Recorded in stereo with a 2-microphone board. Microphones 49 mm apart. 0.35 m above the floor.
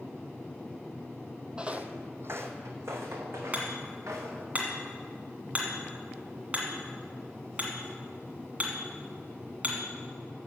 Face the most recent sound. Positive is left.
turn(degrees=-30)  # may be behind; listen again after turning